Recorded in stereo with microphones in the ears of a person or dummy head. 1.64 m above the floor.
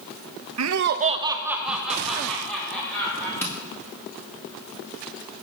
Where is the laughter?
80° right, 0.8 m; by 3.3 s 10° left (ahead or behind), 3.5 m.